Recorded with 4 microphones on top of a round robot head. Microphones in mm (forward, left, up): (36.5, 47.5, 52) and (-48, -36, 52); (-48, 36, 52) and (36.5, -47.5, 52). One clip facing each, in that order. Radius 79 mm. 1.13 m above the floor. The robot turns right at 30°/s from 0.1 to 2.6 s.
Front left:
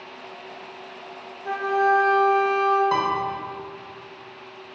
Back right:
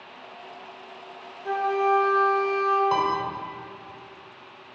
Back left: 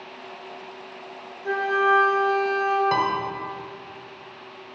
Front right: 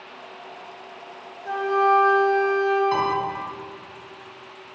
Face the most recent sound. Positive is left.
turn(degrees=140)